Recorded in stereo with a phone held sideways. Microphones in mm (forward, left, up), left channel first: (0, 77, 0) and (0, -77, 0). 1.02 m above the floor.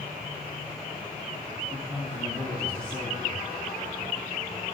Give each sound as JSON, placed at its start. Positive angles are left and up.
{"t": 1.7, "sound": "a man speaking", "side_deg": 10, "distance_m": 1.8}